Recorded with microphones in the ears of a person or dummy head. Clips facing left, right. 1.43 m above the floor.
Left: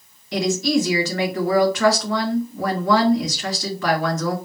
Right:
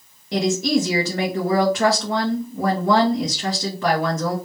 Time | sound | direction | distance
0.3 | a woman speaking | 25° right (ahead or behind) | 1.7 m